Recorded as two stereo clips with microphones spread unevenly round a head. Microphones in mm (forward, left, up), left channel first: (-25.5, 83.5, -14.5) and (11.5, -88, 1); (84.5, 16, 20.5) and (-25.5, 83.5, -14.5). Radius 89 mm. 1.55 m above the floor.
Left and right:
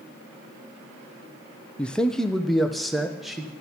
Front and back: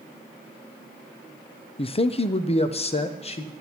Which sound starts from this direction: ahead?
A man speaking, at 1.8 s.